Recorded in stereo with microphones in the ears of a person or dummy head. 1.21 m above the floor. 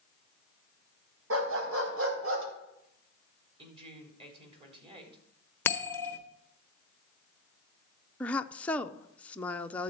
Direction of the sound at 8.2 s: 5° left (ahead or behind).